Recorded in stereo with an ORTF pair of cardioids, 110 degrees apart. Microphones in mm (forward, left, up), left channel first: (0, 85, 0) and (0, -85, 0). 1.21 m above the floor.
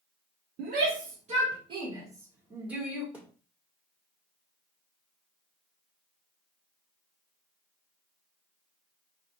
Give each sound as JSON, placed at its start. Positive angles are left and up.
{"t": 0.6, "sound": "a shout", "azimuth_deg": -65, "distance_m": 1.2}
{"t": 3.1, "sound": "a thud", "azimuth_deg": -10, "distance_m": 1.8}